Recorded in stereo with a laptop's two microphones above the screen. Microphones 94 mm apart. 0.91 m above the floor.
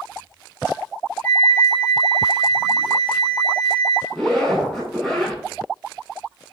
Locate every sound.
1.2 s a flute: 20° left (ahead or behind), 1.2 m
4.1 s a zipper: centre (ahead or behind), 4.5 m